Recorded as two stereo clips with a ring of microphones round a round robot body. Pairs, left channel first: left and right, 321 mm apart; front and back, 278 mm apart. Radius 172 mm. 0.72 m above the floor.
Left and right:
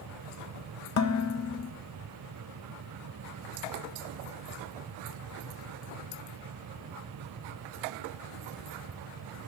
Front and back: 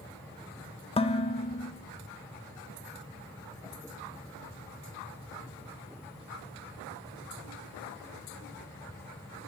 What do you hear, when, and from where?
1.0 s dishes clattering: 65° left, 0.5 m